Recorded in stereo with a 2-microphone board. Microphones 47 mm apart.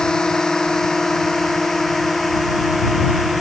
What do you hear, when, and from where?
0.0 s a drone: 15° left (ahead or behind); by 3.4 s centre (ahead or behind)